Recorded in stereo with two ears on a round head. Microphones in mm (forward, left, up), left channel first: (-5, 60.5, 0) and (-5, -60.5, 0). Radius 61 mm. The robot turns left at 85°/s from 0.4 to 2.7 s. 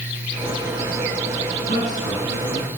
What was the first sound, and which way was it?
A man speaking, 70° left.